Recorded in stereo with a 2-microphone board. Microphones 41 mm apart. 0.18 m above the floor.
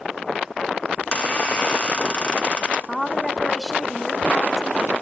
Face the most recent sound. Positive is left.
turn(degrees=15)  # may be behind; listen again after turning